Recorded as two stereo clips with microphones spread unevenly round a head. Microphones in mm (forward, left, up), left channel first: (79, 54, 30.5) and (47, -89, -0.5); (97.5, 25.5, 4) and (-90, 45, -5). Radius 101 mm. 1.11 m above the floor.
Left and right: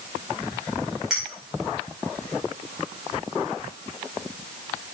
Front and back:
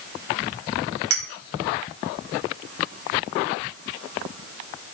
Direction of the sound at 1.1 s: 170° left.